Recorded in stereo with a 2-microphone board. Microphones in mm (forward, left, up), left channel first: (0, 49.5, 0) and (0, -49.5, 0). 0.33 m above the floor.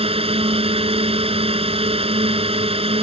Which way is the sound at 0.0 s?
75° right (ahead or behind).